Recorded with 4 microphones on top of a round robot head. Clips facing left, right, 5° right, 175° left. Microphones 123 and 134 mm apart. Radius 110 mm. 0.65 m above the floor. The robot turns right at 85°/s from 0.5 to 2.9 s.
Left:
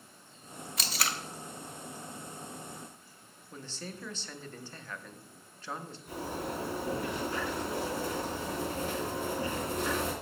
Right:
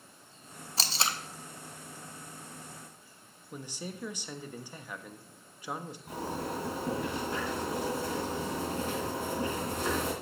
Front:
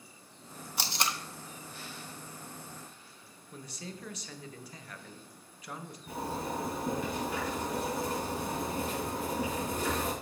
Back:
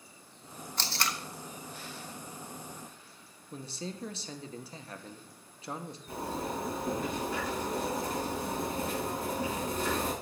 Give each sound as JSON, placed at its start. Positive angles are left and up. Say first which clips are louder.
{"t": 0.8, "sound": "tape being pulled", "louder": "right 2 dB, front 1 dB", "azimuth_deg": -75, "distance_m": 0.6}
{"t": 3.5, "sound": "a man speaking", "louder": "right 2 dB, back 4 dB", "azimuth_deg": -155, "distance_m": 0.6}
{"t": 6.1, "sound": "a zipper", "louder": "right 1 dB, even", "azimuth_deg": -30, "distance_m": 4.0}